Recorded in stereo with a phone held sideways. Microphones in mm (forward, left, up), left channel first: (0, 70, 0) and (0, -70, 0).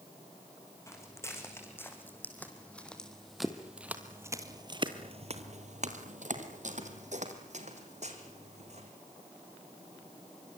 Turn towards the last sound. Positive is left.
turn(degrees=-50)  # may be behind; listen again after turning